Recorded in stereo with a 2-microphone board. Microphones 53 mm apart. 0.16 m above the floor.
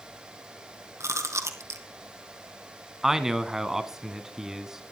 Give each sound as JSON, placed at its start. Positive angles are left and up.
{"t": 1.0, "sound": "chewing", "side_deg": -70, "distance_m": 1.8}
{"t": 3.0, "sound": "a man speaking", "side_deg": -10, "distance_m": 1.4}